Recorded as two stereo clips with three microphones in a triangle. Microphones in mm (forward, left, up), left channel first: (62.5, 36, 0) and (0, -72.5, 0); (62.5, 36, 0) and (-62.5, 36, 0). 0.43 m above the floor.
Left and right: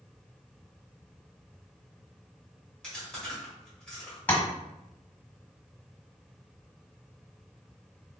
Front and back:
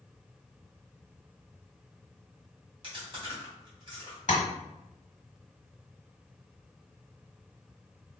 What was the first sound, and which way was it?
Chewing, 140° left.